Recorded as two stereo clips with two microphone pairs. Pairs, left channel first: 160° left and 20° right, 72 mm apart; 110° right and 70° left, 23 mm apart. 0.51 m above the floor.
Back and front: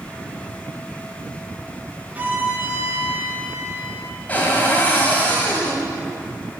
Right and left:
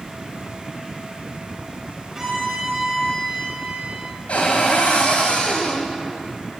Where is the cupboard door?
130° right, 1.7 m.